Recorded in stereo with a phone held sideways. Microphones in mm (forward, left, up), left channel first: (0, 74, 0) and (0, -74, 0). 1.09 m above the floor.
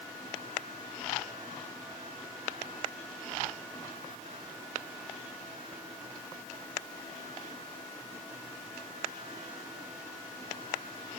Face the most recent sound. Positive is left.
No sound to turn to.